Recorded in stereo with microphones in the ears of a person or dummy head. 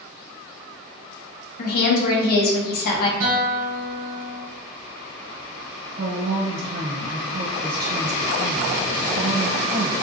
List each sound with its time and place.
1.6 s a woman speaking: 55° left (ahead or behind), 0.7 m
3.2 s a guitar: 40° right (ahead or behind), 1.4 m
6.0 s a woman speaking: 55° right (ahead or behind), 1.1 m